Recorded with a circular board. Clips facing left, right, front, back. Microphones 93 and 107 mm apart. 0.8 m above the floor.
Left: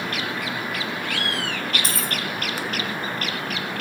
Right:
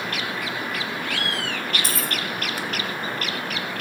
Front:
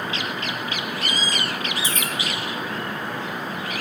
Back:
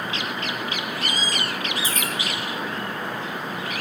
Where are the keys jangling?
Straight ahead, 3 m.